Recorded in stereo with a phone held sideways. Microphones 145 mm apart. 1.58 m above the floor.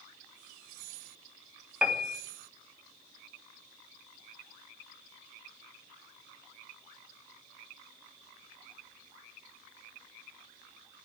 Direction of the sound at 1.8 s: 5° right (ahead or behind).